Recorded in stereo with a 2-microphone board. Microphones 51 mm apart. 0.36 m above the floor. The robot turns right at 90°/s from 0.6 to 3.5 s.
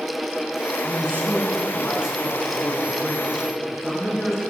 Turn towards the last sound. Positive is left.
turn(degrees=175)